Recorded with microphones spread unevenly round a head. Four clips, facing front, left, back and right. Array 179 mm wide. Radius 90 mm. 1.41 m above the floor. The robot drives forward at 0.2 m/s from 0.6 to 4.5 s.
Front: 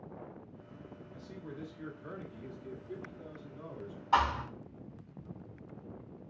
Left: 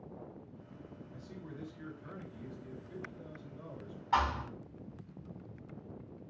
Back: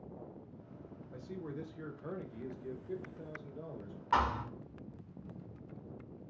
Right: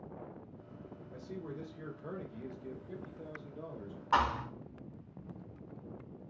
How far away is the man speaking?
About 0.9 m.